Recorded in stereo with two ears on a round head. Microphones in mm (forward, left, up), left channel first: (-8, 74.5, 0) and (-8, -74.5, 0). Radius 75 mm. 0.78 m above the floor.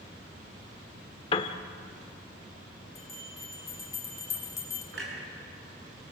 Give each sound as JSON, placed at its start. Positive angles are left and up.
{"t": 1.3, "sound": "a piano", "side_deg": 30, "distance_m": 1.1}
{"t": 3.0, "sound": "a bell", "side_deg": 20, "distance_m": 2.5}
{"t": 4.9, "sound": "a clunk", "side_deg": -80, "distance_m": 6.5}